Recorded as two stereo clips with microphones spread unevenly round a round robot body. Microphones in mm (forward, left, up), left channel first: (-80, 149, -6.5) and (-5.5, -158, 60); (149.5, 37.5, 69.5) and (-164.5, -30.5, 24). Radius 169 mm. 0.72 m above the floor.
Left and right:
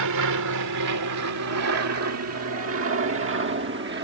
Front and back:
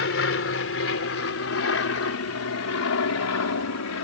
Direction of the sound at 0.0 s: 40° right.